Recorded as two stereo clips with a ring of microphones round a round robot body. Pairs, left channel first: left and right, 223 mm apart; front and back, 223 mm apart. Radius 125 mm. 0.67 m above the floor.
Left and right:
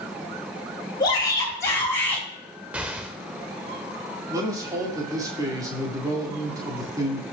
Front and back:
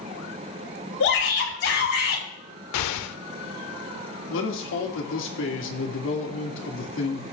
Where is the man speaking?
15° right, 2 m.